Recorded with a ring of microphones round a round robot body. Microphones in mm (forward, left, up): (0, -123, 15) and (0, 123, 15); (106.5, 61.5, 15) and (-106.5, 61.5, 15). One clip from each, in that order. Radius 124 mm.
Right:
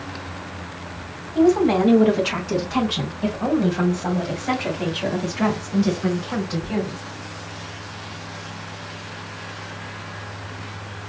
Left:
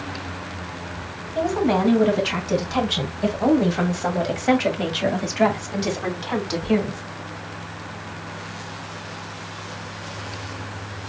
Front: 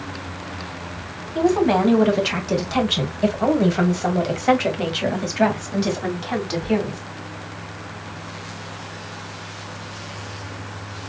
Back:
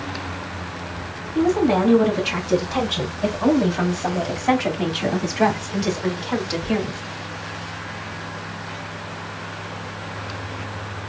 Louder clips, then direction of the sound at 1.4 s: Right 4 dB, front 1 dB; 5° right.